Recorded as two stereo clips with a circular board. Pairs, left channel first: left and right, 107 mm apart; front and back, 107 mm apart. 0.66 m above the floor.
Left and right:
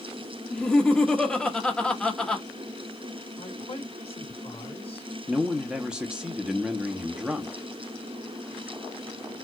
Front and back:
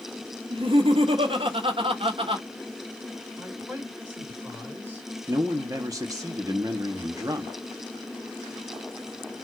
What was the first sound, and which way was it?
Laughter, 175° left.